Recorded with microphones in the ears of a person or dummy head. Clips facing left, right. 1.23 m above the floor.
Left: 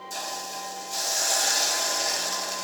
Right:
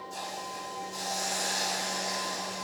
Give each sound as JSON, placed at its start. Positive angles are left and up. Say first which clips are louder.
{"t": 0.1, "sound": "a hiss", "louder": "left 4 dB", "side_deg": 75, "distance_m": 1.1}